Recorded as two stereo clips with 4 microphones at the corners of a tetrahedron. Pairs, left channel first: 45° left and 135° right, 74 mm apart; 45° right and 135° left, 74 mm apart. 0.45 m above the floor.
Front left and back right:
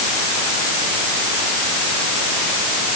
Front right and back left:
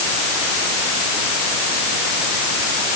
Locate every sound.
Only background noise.